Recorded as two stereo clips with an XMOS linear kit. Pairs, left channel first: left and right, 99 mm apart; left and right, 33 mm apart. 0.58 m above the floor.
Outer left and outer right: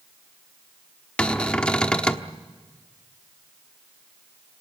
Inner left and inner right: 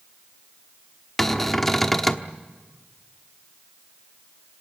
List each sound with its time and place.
1.2 s a cupboard door: 10° left (ahead or behind), 1.0 m